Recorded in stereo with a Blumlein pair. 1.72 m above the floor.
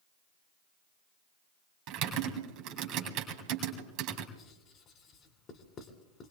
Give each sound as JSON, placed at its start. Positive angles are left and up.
{"t": 1.9, "sound": "typing on a keyboard", "azimuth_deg": -40, "distance_m": 2.0}
{"t": 4.3, "sound": "writing", "azimuth_deg": 30, "distance_m": 2.0}